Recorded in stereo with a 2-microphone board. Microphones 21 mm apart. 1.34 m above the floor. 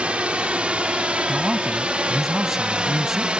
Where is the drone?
65° right (ahead or behind); by 3.4 s 50° right (ahead or behind).